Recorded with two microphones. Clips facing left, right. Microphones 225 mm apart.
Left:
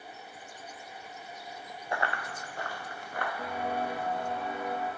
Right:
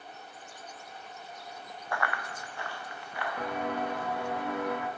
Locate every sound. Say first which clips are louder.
1.9 s running footsteps: left 1 dB; 20° left (ahead or behind), 0.6 m; by 3.3 s 50° left (ahead or behind), 1.4 m
3.4 s footsteps: right 3 dB; 75° right (ahead or behind), 1.3 m; by 4.9 s 65° right (ahead or behind), 1.0 m